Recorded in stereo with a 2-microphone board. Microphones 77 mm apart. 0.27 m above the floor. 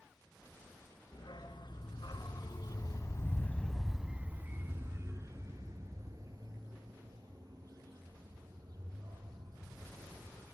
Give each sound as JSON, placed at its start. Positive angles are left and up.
{"t": 1.1, "sound": "a dog barking", "side_deg": 80, "distance_m": 1.8}